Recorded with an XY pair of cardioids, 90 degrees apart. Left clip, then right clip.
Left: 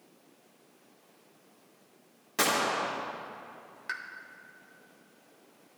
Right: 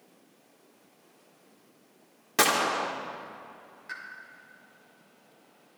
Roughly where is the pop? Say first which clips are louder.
Left 3 dB; ahead left.